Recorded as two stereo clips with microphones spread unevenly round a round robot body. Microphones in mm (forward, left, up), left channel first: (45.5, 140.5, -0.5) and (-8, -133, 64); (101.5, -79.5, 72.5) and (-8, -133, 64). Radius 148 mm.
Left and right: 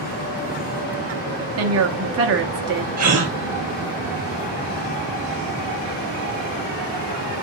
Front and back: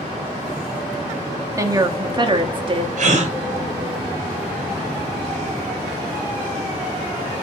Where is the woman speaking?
110° right, 1.2 m; by 2.9 s 160° right, 1.4 m.